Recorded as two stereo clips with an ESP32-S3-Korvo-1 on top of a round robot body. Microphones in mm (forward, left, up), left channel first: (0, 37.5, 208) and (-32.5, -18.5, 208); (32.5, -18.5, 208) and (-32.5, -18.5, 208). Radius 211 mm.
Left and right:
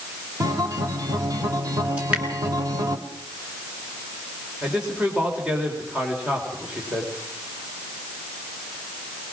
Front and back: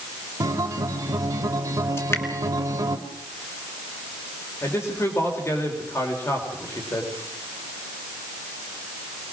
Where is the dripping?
50° right, 2.5 m.